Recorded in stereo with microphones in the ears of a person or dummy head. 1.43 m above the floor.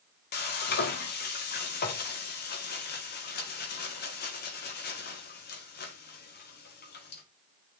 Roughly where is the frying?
Left.